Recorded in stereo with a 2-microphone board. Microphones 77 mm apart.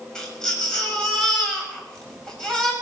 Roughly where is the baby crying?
Centre.